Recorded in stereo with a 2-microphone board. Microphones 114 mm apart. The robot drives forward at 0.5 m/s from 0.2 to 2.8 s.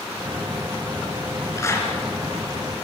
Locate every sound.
1.6 s a clap: 25° left (ahead or behind), 3.5 m